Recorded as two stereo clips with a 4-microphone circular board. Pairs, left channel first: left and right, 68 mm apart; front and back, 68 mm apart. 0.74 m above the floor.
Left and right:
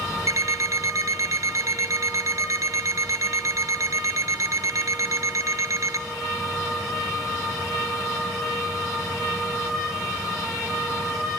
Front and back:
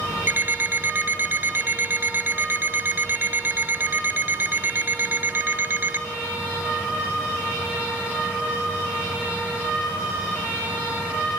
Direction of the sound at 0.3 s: 125° right.